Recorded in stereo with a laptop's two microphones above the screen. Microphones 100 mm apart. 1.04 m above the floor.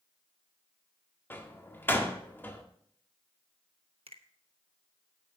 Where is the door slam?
20° left (ahead or behind), 1.7 m.